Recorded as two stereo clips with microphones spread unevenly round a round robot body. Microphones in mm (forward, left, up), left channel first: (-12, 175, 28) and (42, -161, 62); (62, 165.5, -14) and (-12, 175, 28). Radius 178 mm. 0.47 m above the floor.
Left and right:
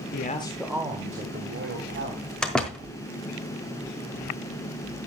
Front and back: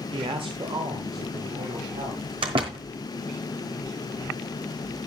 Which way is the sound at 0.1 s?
145° left.